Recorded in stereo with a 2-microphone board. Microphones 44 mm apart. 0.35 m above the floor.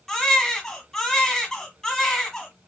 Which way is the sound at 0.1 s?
5° left (ahead or behind).